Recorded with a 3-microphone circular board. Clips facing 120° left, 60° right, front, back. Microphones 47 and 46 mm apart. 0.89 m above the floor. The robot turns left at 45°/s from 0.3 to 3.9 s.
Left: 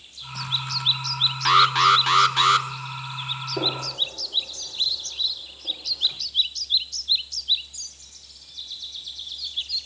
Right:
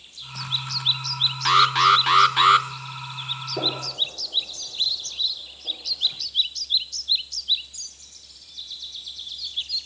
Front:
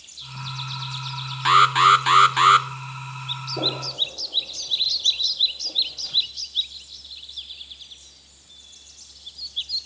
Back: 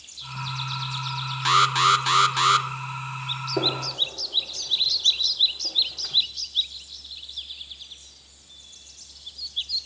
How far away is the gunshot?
About 8.5 m.